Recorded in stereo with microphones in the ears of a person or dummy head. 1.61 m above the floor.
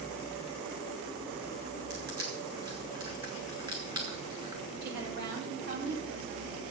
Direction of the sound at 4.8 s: 55° right (ahead or behind).